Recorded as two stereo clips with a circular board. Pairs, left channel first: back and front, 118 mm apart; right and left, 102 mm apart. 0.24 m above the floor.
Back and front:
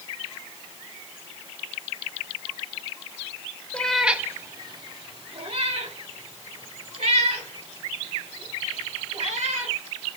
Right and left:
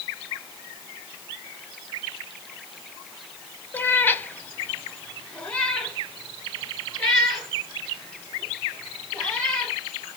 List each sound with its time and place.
3.7 s a cat meowing: 120° right, 0.6 m; by 9.8 s 5° right, 4 m